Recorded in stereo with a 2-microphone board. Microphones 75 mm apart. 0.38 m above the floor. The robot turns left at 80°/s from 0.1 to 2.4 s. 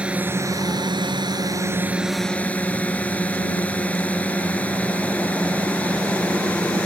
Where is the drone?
15° right; by 6.9 s 160° left.